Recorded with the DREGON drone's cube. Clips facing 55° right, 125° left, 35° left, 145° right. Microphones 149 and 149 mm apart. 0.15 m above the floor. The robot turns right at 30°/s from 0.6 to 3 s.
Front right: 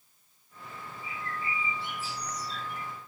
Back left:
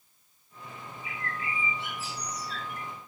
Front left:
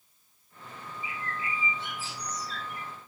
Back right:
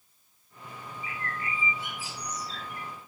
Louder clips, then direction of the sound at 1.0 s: Even, even; 110° left.